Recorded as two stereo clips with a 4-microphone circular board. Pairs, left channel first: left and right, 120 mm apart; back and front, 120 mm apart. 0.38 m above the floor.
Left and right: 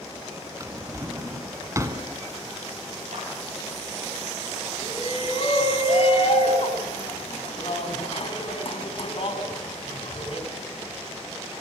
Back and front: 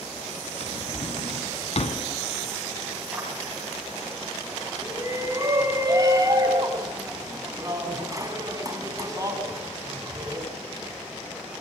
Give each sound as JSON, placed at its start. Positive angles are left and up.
{"t": 0.6, "sound": "a drawer", "azimuth_deg": -155, "distance_m": 1.8}
{"t": 3.1, "sound": "a clap", "azimuth_deg": -80, "distance_m": 9.0}
{"t": 4.8, "sound": "a shout", "azimuth_deg": 60, "distance_m": 3.5}